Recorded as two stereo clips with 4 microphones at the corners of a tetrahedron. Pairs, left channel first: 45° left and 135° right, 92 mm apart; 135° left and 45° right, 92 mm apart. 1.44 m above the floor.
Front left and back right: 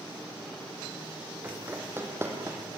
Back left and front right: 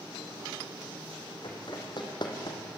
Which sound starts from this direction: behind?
Running footsteps, at 1.4 s.